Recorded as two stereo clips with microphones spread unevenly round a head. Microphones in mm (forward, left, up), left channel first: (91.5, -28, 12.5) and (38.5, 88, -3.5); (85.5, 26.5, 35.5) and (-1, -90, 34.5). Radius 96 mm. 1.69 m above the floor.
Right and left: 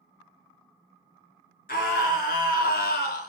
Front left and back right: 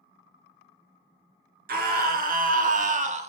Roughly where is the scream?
Behind right.